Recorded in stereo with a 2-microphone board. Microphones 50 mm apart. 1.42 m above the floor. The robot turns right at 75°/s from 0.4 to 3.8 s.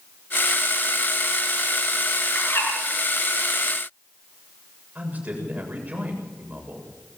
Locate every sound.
2.4 s a bird: 35° left (ahead or behind), 9.5 m; by 2.7 s 60° left (ahead or behind), 9.5 m
5.0 s a man speaking: 30° right (ahead or behind), 7 m